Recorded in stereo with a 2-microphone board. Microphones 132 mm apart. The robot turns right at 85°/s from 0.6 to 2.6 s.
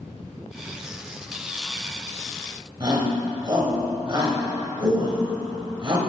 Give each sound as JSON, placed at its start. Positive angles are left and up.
{"t": 2.8, "sound": "a shout", "side_deg": -35, "distance_m": 2.0}